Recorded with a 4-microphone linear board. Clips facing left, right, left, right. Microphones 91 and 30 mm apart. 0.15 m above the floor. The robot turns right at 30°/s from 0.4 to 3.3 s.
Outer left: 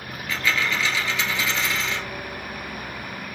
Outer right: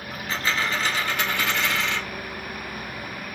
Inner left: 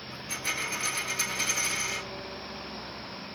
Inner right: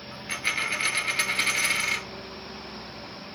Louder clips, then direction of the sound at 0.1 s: Outer left 1 dB, inner right 5 dB; 145° right.